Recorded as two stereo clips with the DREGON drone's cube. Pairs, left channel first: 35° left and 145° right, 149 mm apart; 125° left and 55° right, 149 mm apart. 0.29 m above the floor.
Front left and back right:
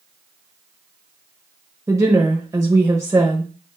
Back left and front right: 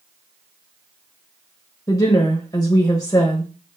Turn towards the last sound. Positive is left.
turn(degrees=165)